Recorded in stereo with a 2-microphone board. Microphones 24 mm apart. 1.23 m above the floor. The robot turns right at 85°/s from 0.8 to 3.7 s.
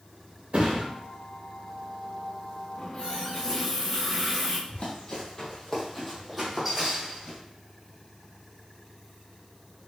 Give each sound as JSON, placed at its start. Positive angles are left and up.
{"t": 0.5, "sound": "a thud", "side_deg": -75, "distance_m": 2.5}
{"t": 2.8, "sound": "a running tap", "azimuth_deg": 95, "distance_m": 1.5}
{"t": 4.7, "sound": "running footsteps", "side_deg": 50, "distance_m": 2.0}